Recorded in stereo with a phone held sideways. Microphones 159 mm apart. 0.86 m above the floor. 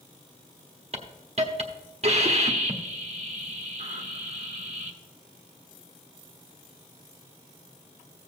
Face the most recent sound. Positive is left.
turn(degrees=-45)  # may be behind; listen again after turning